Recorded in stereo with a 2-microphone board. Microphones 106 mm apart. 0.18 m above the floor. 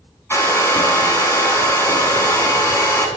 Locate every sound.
0.3 s a hair dryer: 25° left (ahead or behind), 0.9 m